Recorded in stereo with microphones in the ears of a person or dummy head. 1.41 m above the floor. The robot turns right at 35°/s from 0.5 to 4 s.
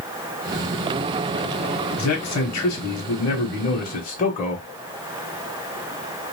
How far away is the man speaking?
About 1.0 m.